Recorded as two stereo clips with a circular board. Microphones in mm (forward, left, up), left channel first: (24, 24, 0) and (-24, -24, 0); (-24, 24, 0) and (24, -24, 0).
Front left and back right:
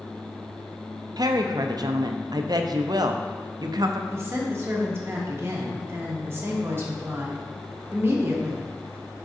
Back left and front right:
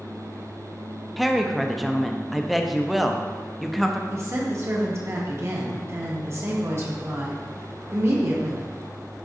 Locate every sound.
1.2 s a woman speaking: 135° right, 0.6 m
4.1 s a woman speaking: 85° right, 1.2 m